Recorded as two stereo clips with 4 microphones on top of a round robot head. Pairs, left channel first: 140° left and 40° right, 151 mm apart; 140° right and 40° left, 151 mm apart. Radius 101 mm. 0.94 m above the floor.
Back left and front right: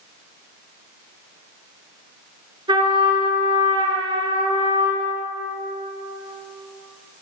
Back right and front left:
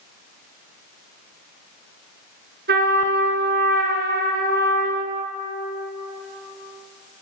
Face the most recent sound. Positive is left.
turn(degrees=20)